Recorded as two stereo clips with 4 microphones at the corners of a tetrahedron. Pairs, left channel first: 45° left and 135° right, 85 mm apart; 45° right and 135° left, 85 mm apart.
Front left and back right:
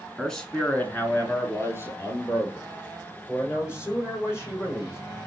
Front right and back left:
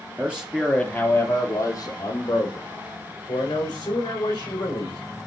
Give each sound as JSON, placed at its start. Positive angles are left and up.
{"t": 0.2, "sound": "a man speaking", "azimuth_deg": 125, "distance_m": 1.4}